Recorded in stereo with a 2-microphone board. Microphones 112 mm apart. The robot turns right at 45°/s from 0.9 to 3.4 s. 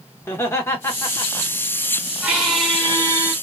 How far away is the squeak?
About 1.5 m.